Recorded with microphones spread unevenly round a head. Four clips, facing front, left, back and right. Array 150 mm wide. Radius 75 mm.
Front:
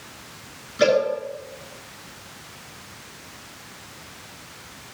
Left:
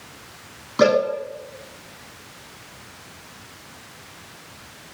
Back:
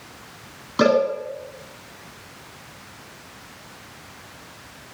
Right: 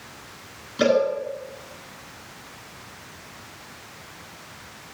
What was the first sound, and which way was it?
A cowbell, 145° left.